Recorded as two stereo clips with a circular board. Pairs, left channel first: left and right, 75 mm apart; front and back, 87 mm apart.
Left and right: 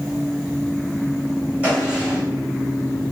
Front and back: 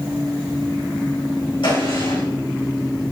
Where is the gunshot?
20° right, 4 m.